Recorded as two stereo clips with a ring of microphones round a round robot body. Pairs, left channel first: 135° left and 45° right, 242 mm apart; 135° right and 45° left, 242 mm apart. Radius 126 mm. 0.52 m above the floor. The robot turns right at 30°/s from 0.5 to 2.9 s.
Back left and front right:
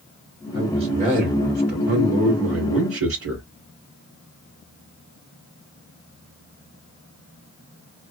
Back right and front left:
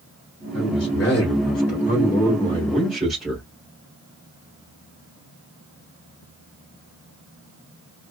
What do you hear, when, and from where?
0.5 s a man speaking: 115° right, 2 m; by 3.5 s 45° right, 2 m